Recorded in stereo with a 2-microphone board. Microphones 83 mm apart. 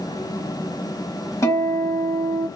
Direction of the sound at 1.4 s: 40° left (ahead or behind).